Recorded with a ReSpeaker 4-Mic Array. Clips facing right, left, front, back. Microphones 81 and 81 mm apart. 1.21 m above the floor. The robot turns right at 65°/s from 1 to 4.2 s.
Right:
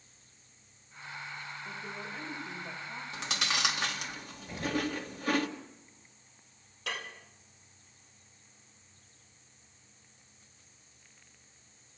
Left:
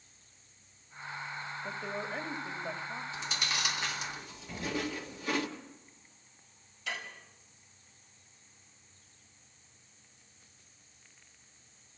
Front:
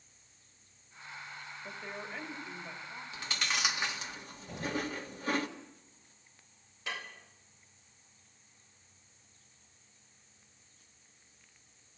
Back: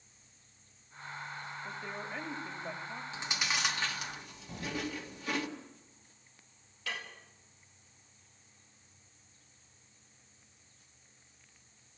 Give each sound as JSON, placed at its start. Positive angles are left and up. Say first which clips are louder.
{"t": 1.6, "sound": "a woman speaking", "louder": "left 6 dB, even", "azimuth_deg": 80, "distance_m": 3.0}
{"t": 3.1, "sound": "chewing", "louder": "right 5 dB, even", "azimuth_deg": -115, "distance_m": 1.9}
{"t": 4.5, "sound": "an explosion", "louder": "right 3 dB, front 2 dB", "azimuth_deg": -25, "distance_m": 7.5}
{"t": 6.9, "sound": "dishes clattering", "louder": "right 1 dB, even", "azimuth_deg": -65, "distance_m": 4.0}